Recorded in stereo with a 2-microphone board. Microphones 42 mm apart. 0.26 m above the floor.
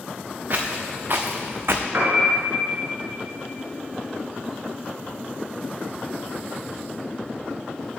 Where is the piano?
65° right (ahead or behind), 2.5 m.